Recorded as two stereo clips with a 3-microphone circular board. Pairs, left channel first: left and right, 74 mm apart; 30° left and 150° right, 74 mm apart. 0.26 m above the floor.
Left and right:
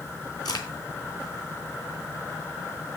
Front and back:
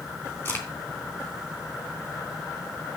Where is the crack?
85° left, 2.5 m.